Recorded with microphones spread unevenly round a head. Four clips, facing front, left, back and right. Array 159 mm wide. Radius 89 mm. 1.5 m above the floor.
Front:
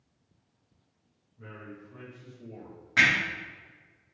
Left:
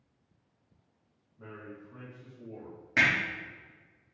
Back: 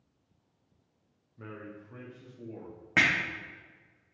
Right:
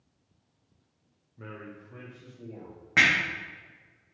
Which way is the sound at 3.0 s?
175° right.